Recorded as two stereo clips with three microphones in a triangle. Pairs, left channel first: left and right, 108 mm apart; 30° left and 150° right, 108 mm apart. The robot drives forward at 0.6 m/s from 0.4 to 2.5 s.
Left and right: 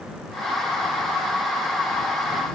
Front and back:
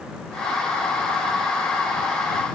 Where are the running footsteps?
I don't hear running footsteps.